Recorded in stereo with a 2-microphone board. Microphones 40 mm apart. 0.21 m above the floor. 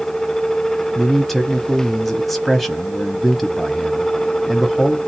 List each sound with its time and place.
0.9 s a man speaking: 5° left (ahead or behind), 1.0 m